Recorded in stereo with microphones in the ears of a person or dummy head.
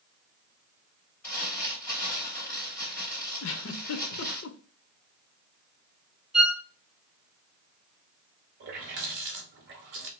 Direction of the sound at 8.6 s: 45° right (ahead or behind).